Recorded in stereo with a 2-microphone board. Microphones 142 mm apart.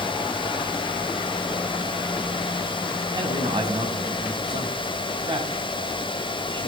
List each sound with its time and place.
3.1 s a man speaking: 30° right (ahead or behind), 7 m